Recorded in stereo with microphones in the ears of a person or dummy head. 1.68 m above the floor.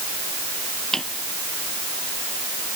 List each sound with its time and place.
0.9 s a drawer: 5° left (ahead or behind)